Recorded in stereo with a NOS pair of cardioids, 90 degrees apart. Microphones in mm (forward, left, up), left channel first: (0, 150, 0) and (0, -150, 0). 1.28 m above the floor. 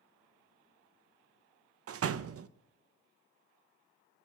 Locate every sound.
1.9 s a door slam: 50° right, 0.8 m